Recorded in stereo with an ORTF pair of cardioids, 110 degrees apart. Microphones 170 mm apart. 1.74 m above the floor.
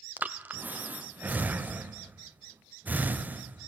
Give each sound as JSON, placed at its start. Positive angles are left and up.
{"t": 0.2, "sound": "breathing", "azimuth_deg": -10, "distance_m": 0.8}